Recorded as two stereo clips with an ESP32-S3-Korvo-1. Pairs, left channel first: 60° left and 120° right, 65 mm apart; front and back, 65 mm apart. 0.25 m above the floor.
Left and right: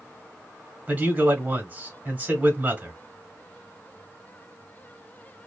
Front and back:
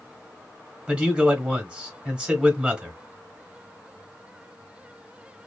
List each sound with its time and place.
0.9 s a man speaking: 130° right, 1.0 m